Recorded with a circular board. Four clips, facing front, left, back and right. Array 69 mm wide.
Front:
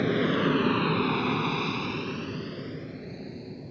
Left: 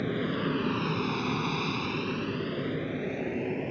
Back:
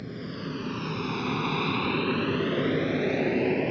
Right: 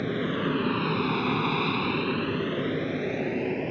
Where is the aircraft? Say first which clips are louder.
Right 2 dB, front 12 dB; 10° right; by 3.7 s 165° right.